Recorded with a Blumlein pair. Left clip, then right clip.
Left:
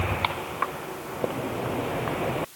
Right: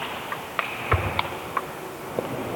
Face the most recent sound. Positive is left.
No sound to turn to.